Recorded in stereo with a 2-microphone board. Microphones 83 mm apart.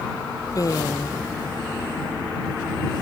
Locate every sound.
0.6 s a woman speaking: 45° left (ahead or behind)